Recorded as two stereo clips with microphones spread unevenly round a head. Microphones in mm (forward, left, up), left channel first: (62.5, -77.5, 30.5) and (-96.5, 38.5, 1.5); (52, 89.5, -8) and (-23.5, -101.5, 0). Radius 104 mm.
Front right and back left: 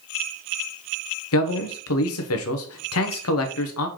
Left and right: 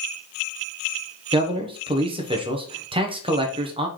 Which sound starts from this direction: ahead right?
A man speaking, at 1.3 s.